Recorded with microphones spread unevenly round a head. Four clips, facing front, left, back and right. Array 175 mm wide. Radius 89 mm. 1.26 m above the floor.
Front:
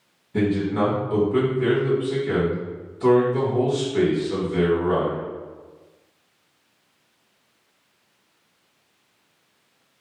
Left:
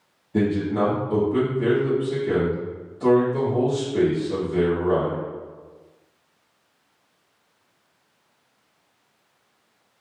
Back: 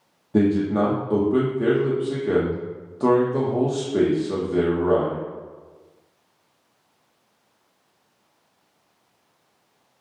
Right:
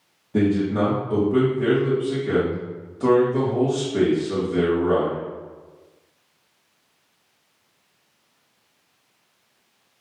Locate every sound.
0.3 s a man speaking: 165° right, 1.5 m